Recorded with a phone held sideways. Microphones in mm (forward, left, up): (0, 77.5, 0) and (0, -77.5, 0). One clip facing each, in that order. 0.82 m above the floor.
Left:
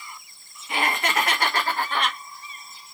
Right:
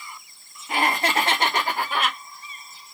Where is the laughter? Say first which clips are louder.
Right 2 dB; 40° right (ahead or behind), 1.4 m; by 2.2 s centre (ahead or behind), 1.2 m.